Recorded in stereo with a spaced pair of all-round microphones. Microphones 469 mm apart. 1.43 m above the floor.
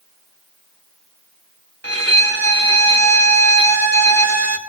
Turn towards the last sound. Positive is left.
turn(degrees=-30)  # may be behind; listen again after turning